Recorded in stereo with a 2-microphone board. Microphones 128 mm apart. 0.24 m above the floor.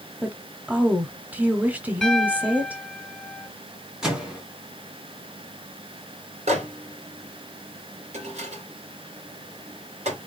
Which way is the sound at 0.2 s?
15° right (ahead or behind).